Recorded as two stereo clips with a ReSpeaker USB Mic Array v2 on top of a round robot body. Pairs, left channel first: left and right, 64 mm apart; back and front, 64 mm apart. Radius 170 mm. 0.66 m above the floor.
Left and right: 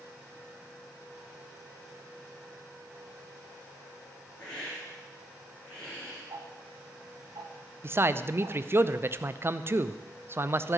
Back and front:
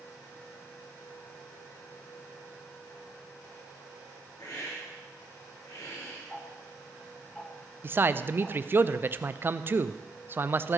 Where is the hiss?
165° left, 7.5 m.